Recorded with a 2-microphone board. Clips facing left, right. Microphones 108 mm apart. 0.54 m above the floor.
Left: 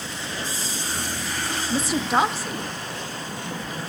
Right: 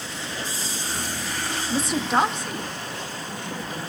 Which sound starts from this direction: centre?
A woman speaking, at 1.7 s.